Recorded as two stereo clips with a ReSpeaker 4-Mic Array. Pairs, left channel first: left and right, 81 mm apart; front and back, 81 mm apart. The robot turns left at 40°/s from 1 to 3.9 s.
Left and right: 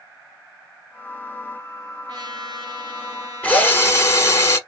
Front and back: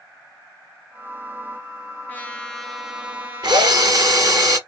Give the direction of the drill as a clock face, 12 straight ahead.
7 o'clock.